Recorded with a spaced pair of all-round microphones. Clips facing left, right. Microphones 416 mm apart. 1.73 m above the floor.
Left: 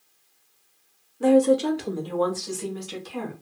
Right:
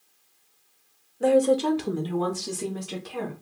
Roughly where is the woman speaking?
Centre.